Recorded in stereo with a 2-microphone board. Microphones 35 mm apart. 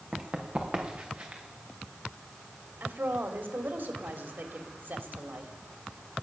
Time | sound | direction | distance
0.1 | running footsteps | 30° right (ahead or behind) | 2.5 m
2.8 | a woman speaking | 75° right (ahead or behind) | 2.5 m